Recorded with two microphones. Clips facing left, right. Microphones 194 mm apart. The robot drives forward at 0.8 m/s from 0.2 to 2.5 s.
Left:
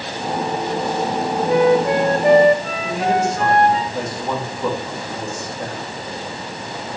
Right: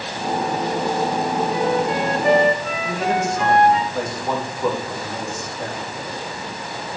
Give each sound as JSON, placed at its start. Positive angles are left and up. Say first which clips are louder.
{"t": 1.5, "sound": "a flute", "louder": "left 10 dB", "side_deg": 75, "distance_m": 0.8}
{"t": 2.8, "sound": "a man speaking", "louder": "left 3 dB", "side_deg": 5, "distance_m": 2.5}